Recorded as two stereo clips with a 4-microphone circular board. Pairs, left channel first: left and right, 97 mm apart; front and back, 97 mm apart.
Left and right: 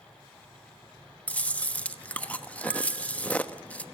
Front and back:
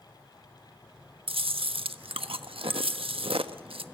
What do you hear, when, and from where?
1.3 s chewing: 165° left, 1.2 m